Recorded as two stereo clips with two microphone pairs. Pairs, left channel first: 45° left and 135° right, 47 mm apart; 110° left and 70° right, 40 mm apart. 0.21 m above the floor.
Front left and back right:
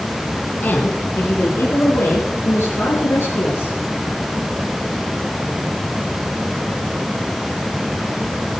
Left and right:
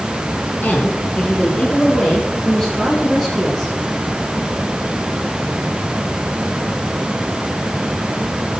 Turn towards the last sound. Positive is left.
turn(degrees=30)